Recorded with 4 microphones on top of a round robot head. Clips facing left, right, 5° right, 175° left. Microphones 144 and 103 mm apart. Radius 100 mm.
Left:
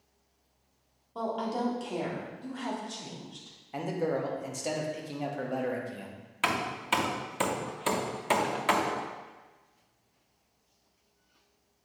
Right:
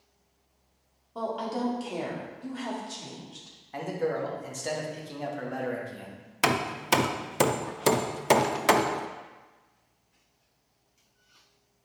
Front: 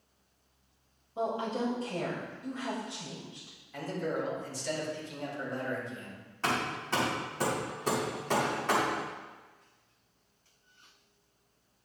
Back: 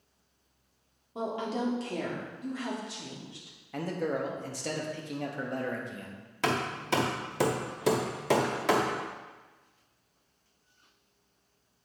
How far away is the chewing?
I don't hear chewing.